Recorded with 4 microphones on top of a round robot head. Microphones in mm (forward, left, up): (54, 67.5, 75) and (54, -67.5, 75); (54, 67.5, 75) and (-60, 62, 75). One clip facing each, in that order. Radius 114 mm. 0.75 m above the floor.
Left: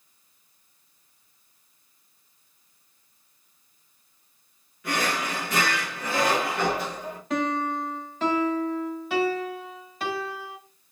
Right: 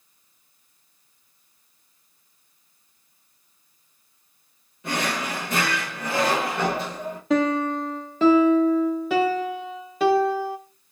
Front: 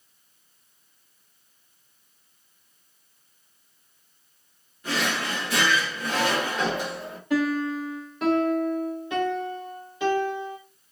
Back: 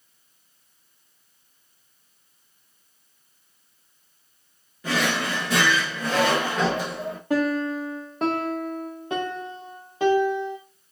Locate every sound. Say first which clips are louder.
4.8 s a drawer: right 1 dB, back 3 dB; 160° right, 1.3 m
7.3 s a piano: right 5 dB, back 1 dB; 110° right, 0.5 m